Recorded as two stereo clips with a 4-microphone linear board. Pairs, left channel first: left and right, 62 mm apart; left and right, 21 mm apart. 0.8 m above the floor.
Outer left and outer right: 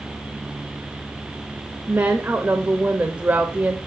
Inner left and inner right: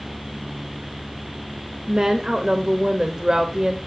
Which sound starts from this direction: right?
A woman speaking, at 1.9 s.